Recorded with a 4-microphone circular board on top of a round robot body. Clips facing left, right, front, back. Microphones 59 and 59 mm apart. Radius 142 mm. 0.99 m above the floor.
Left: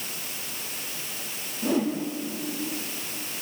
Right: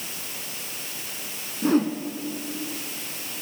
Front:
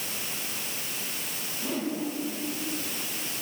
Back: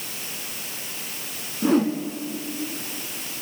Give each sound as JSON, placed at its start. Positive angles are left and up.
{"t": 1.6, "sound": "a whoosh", "azimuth_deg": -140, "distance_m": 2.0}